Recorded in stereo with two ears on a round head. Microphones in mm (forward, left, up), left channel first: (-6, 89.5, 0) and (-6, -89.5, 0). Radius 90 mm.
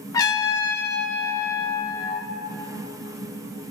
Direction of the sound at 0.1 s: 20° left (ahead or behind).